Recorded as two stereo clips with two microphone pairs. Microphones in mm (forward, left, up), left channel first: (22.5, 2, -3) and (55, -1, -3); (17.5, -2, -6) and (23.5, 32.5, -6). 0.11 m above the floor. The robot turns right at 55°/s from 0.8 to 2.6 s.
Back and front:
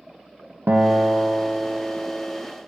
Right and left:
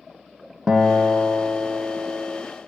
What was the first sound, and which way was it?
A guitar, 15° left.